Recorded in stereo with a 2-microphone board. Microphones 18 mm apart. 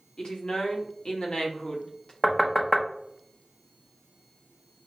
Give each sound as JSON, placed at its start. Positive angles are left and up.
{"t": 0.2, "sound": "a woman speaking", "side_deg": 60, "distance_m": 1.6}
{"t": 2.2, "sound": "knocking", "side_deg": 25, "distance_m": 0.9}